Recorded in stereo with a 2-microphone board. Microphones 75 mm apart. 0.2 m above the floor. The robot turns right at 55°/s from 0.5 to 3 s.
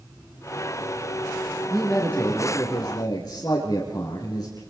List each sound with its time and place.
1.7 s a man speaking: straight ahead, 4 m; by 4.6 s 70° left, 4 m